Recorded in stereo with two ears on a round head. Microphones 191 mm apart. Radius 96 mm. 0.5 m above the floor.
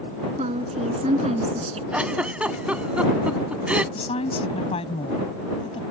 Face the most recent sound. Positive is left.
turn(degrees=30)  # may be behind; listen again after turning